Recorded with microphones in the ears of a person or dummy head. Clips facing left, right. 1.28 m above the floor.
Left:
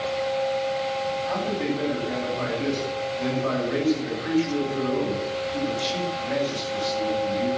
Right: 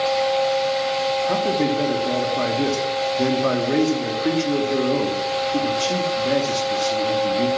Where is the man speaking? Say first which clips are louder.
Right 7 dB; 50° right (ahead or behind), 3 m.